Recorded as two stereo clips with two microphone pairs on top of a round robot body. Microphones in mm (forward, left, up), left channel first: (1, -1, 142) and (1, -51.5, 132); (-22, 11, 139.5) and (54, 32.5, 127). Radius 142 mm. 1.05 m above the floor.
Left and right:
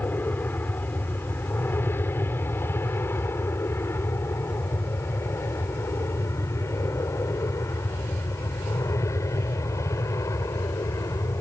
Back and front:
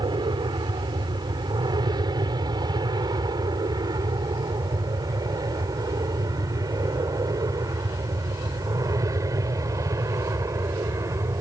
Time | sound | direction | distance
0.0 | an aircraft | 35° left | ?